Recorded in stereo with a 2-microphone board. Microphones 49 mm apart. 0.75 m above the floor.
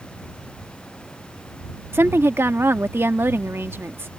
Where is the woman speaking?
50° right (ahead or behind).